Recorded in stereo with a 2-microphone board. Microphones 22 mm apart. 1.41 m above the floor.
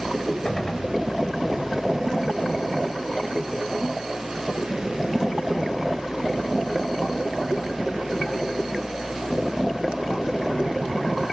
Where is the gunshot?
30° left (ahead or behind), 1.6 m.